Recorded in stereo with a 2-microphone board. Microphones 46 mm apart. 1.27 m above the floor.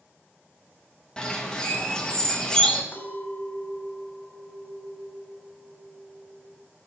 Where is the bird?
15° left (ahead or behind), 1.4 m.